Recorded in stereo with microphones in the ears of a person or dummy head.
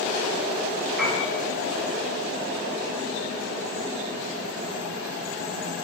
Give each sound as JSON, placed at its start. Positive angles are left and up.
{"t": 1.0, "sound": "a piano", "side_deg": 5, "distance_m": 6.5}